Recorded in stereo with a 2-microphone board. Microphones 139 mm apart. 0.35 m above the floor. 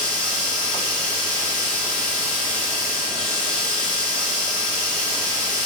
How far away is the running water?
About 4 m.